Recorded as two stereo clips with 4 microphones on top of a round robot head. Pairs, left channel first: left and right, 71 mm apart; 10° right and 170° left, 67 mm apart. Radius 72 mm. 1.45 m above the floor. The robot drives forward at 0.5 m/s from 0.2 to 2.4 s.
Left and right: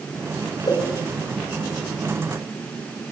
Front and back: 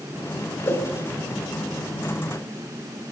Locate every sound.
0.7 s a whoosh: 40° left, 5 m